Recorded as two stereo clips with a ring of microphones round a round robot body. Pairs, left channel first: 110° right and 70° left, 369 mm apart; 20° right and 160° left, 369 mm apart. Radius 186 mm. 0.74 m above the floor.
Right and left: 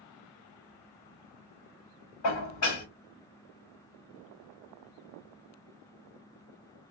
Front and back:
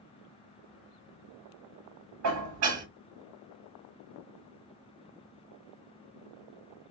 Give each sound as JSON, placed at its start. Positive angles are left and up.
{"t": 2.2, "sound": "dishes clattering", "azimuth_deg": -155, "distance_m": 1.0}